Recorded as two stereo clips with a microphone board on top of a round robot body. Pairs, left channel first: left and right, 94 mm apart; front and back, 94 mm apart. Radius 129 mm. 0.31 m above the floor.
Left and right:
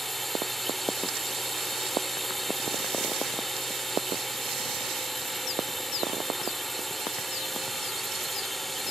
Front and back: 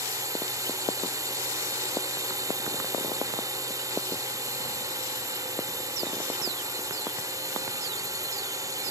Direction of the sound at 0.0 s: 175° left.